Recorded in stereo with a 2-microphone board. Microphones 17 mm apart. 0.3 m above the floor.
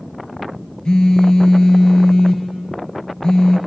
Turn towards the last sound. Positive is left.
turn(degrees=50)  # may be behind; listen again after turning